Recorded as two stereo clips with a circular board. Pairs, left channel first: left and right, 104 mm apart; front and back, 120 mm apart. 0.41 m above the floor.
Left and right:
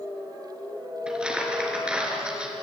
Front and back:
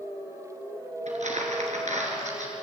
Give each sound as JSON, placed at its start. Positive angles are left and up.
{"t": 1.1, "sound": "crumpling", "azimuth_deg": -170, "distance_m": 3.5}